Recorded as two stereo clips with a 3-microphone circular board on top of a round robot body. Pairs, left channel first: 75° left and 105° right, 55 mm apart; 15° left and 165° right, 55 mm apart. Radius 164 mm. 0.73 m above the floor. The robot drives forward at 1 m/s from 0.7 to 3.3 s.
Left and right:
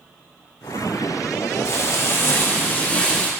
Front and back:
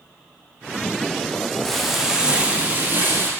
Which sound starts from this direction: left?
Frying, at 1.6 s.